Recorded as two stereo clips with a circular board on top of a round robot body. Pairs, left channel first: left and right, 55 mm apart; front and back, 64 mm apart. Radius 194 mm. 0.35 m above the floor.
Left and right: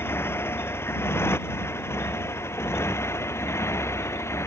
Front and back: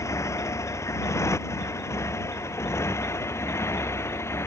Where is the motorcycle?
40° left; by 4.5 s 50° left.